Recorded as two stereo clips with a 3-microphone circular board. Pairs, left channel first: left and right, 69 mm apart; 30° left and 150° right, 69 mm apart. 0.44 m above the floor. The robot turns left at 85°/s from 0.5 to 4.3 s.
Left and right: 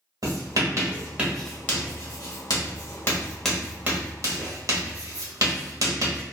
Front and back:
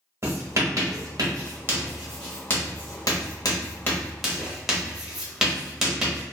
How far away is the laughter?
No laughter in this recording.